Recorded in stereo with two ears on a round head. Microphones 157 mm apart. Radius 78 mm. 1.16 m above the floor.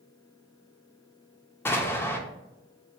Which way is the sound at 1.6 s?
15° left (ahead or behind).